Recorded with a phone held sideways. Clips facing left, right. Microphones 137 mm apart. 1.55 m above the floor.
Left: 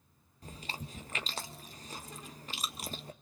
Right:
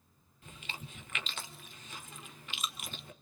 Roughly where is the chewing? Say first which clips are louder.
Left 4 dB; left.